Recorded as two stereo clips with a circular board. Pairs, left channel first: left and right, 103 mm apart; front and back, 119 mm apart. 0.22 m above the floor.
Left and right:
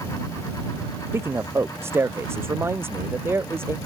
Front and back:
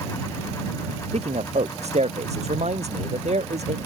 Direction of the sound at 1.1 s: 155° right.